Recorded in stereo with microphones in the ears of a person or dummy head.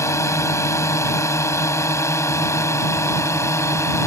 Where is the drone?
20° left (ahead or behind).